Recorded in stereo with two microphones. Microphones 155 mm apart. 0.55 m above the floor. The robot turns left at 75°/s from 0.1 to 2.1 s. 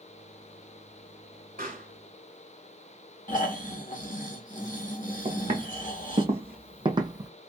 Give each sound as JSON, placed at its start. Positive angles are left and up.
{"t": 1.6, "sound": "a pop", "side_deg": -65, "distance_m": 2.0}
{"t": 3.3, "sound": "snoring", "side_deg": 60, "distance_m": 0.8}
{"t": 5.2, "sound": "footsteps", "side_deg": -45, "distance_m": 1.7}